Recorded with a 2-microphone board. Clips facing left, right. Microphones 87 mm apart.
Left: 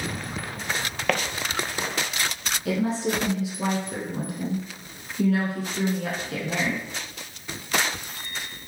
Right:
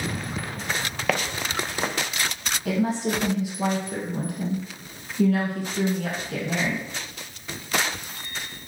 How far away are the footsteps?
About 0.6 m.